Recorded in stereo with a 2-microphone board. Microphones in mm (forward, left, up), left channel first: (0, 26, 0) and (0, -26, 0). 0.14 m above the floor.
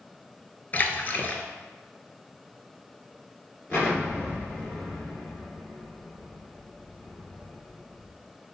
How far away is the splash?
About 0.5 m.